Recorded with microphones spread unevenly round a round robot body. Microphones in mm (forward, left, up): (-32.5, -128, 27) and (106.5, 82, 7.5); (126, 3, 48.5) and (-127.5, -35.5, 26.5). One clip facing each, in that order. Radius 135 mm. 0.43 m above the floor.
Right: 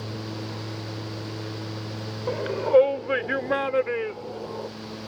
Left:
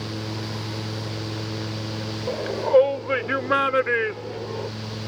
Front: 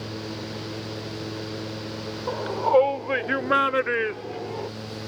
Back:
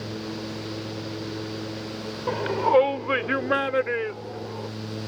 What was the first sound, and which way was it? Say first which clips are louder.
A shout: left 1 dB, back 1 dB; 160° left.